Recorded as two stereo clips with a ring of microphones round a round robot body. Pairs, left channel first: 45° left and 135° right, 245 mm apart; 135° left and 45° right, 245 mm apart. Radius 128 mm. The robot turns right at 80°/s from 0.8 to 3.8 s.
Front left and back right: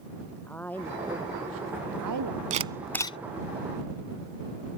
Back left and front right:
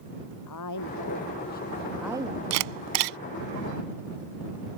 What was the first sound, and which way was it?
A woman speaking, 130° left.